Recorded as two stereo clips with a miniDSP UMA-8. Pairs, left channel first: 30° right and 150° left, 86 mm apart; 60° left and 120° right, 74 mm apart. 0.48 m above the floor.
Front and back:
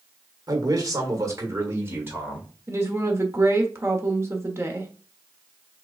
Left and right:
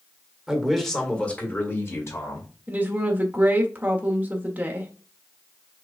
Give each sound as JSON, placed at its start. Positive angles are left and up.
{"t": 0.5, "sound": "a man speaking", "azimuth_deg": 160, "distance_m": 1.5}
{"t": 2.7, "sound": "a woman speaking", "azimuth_deg": -175, "distance_m": 1.3}